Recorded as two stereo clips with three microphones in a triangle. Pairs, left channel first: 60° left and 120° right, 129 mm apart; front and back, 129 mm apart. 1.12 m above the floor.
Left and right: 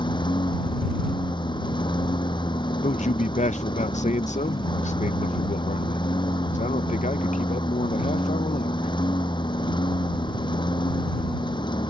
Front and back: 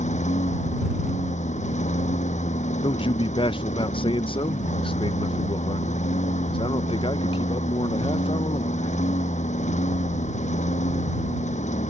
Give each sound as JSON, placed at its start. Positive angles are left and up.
{"t": 0.0, "sound": "a lawn mower", "azimuth_deg": 10}
{"t": 2.8, "sound": "a man speaking", "azimuth_deg": 45}